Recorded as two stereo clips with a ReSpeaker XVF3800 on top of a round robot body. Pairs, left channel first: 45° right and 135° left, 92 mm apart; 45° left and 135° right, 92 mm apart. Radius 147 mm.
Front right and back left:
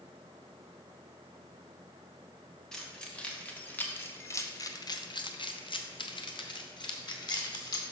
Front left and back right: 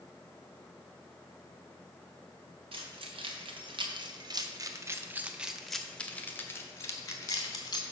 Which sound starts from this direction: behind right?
Keys jangling, at 2.7 s.